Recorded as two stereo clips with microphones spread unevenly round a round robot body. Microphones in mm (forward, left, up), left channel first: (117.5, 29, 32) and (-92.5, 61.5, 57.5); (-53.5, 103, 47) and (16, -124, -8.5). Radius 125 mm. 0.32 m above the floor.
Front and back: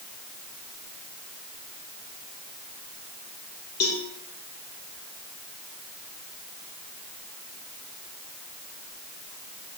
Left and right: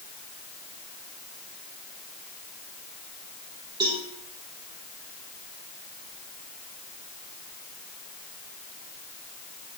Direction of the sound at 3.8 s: Straight ahead.